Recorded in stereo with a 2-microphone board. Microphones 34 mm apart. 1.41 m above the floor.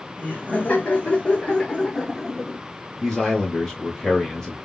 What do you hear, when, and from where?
0.2 s laughter: 65° left (ahead or behind), 1.3 m; by 2.6 s 10° right (ahead or behind), 0.7 m
3.0 s a man speaking: 15° left (ahead or behind), 1.1 m